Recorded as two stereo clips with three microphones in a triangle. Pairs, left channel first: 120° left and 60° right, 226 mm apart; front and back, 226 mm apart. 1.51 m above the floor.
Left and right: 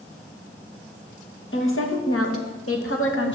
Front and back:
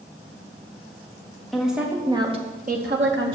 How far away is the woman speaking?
About 2.5 m.